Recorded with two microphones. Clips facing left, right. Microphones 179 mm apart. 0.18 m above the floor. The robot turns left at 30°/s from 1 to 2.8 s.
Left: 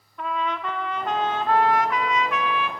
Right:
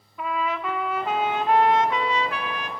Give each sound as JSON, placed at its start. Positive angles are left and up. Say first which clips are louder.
{"t": 0.2, "sound": "a trumpet", "louder": "right 1 dB", "azimuth_deg": -5, "distance_m": 0.5}